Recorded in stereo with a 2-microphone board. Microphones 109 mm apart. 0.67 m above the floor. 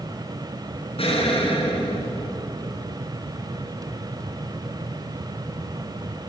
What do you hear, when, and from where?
1.0 s an explosion: 60° left (ahead or behind), 3.5 m